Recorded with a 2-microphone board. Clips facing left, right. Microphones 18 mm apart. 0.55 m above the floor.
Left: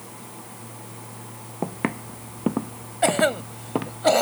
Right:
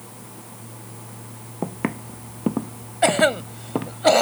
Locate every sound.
1.6 s footsteps: 5° left (ahead or behind); by 4.0 s 10° left (ahead or behind)
3.0 s a cough: 15° right (ahead or behind)